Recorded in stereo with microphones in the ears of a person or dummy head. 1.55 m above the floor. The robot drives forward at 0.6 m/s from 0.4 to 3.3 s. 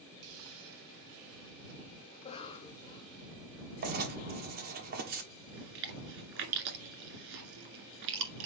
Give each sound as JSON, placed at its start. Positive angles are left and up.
{"t": 0.2, "sound": "a hiss", "side_deg": -70, "distance_m": 1.1}
{"t": 2.1, "sound": "a cough", "side_deg": 35, "distance_m": 0.9}
{"t": 3.8, "sound": "writing", "side_deg": -50, "distance_m": 1.3}
{"t": 5.5, "sound": "chewing", "side_deg": -60, "distance_m": 1.5}